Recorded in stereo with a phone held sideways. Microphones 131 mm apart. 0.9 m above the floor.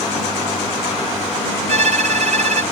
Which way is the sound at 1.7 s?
60° right (ahead or behind).